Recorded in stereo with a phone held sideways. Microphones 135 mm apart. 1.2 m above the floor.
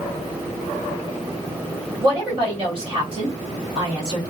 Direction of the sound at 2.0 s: 40° right (ahead or behind).